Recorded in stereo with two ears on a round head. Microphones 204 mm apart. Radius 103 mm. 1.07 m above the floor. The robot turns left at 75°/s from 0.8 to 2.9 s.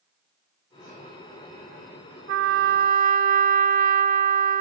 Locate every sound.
2.3 s a trumpet: 85° right, 1.4 m; by 4.6 s 130° right, 1.4 m